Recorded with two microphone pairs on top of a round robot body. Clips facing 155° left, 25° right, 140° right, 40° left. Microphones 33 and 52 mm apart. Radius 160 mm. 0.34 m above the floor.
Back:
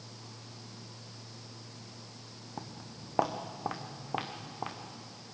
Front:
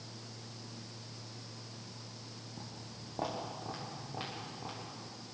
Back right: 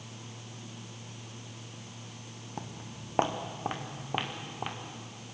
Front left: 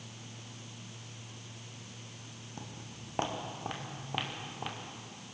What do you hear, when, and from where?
2.6 s footsteps: 160° left, 1.9 m; by 4.8 s 145° left, 3.5 m